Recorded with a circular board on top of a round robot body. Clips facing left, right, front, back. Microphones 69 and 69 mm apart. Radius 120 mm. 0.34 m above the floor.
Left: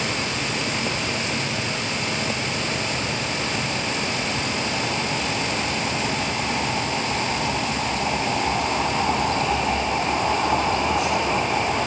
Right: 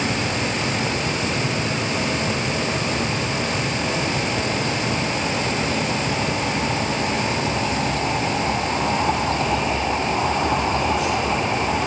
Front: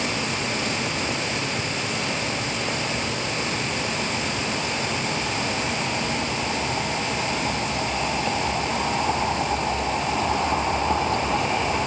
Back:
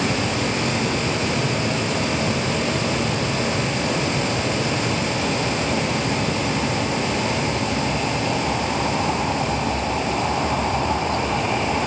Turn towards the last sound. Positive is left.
No sound to turn to.